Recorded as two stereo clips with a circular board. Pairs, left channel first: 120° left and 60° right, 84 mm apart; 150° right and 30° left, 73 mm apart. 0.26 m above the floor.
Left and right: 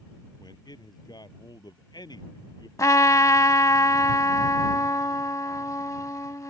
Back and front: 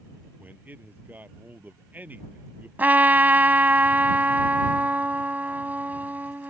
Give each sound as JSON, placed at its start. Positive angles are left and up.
{"t": 0.4, "sound": "a man speaking", "azimuth_deg": 95}
{"t": 2.8, "sound": "a trumpet", "azimuth_deg": 85}